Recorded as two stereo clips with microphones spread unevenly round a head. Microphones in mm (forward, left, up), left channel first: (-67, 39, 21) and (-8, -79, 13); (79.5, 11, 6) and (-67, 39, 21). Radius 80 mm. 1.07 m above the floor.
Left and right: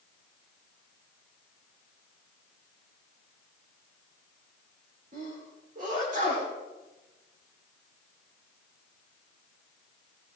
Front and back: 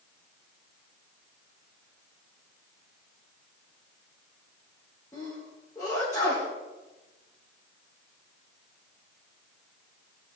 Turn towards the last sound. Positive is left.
turn(degrees=-85)